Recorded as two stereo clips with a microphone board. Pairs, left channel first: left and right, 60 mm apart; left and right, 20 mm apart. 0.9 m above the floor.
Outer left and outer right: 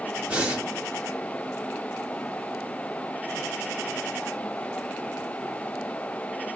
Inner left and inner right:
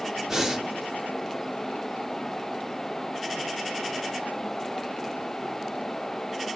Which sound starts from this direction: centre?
Breathing, at 0.3 s.